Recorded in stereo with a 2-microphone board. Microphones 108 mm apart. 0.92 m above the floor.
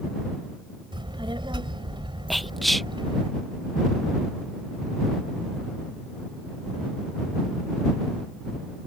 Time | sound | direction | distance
0.9 | a child speaking | 50° right (ahead or behind) | ?
2.3 | whispering | centre (ahead or behind) | ?